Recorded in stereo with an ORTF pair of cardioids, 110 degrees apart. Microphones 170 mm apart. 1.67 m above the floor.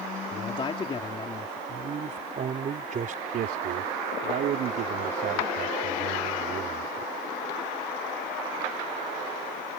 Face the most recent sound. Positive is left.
turn(degrees=-65)